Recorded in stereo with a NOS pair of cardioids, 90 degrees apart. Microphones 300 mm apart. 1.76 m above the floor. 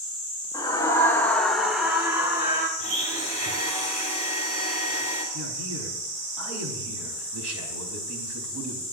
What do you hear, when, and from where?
0.5 s a scream: 15° left, 1.8 m; by 2.7 s 25° right, 1.4 m
2.8 s a blender: 70° right, 4.5 m
5.3 s a man speaking: 60° right, 4 m